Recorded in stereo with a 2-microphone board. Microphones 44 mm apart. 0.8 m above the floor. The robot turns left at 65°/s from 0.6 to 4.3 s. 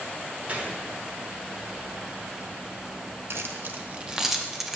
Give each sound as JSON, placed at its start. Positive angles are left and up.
{"t": 0.5, "sound": "a gunshot", "side_deg": -30, "distance_m": 1.0}
{"t": 3.3, "sound": "keys jangling", "side_deg": -70, "distance_m": 0.5}